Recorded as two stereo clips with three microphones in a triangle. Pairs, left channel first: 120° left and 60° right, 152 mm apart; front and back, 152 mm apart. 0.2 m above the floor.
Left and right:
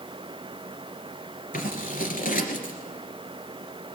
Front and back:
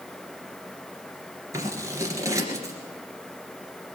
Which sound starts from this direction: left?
Scissors, at 1.5 s.